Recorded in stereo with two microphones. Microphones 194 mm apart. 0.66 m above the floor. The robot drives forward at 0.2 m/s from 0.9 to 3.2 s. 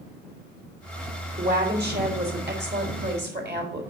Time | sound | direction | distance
1.4 | a woman speaking | 55° right (ahead or behind) | 3 m